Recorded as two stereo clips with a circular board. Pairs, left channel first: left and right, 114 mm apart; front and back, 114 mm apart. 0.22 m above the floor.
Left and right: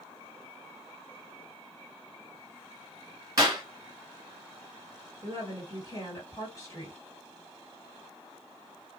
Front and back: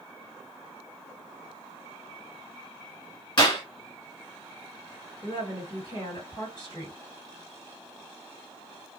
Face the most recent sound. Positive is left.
turn(degrees=35)